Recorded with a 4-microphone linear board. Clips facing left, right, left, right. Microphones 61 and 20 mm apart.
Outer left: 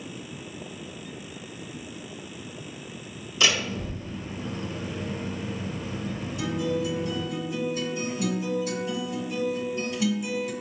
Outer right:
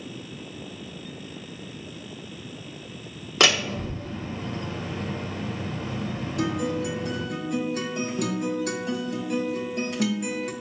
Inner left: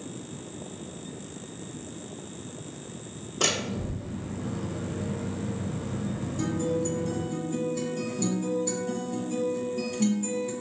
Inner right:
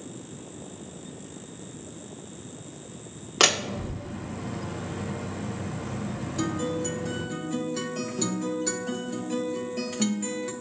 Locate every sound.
3.4 s a door slam: 65° right (ahead or behind), 1.0 m
6.4 s a guitar: 60° right (ahead or behind), 1.1 m